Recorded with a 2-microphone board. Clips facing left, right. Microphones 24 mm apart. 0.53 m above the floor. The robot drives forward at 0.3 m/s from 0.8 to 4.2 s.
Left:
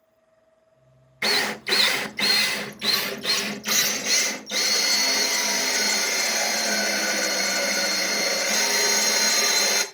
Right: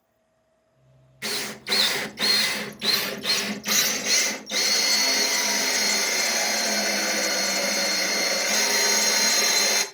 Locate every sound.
1.2 s a drill: 80° left, 0.5 m; by 9.8 s 30° left (ahead or behind), 1.0 m